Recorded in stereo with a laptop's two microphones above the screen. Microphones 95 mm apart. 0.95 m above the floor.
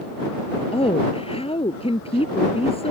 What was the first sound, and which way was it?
A woman speaking, 90° left.